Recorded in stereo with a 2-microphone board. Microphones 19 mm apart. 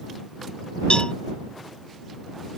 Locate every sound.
0.9 s a cowbell: 65° left (ahead or behind)